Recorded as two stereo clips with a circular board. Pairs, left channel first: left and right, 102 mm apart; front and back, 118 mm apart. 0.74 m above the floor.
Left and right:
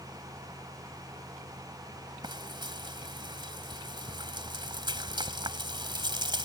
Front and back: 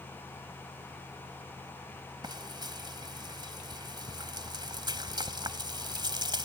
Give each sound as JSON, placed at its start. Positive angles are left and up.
{"t": 2.2, "sound": "frying", "azimuth_deg": -130}